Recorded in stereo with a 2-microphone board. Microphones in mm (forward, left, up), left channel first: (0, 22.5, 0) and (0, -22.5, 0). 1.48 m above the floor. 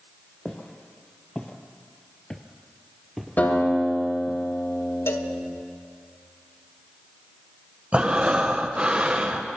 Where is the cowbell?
70° left (ahead or behind), 1.3 m.